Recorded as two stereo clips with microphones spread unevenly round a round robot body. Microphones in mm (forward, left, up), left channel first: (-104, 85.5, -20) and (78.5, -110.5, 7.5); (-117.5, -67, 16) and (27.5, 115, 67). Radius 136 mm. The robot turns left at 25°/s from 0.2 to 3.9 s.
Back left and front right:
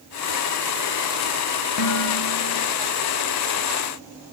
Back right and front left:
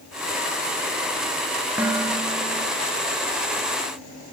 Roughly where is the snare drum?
No snare drum in this recording.